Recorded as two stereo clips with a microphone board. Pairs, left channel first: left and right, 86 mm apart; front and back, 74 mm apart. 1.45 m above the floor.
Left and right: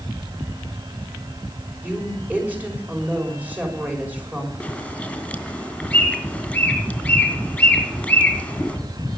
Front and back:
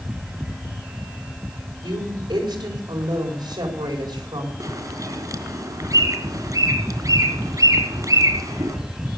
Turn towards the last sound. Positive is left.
turn(degrees=165)